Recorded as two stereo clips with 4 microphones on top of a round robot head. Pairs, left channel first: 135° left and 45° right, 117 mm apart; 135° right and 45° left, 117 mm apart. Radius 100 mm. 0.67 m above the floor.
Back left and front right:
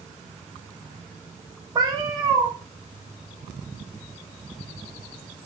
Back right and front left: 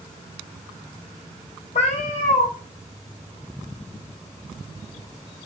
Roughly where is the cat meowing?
Right.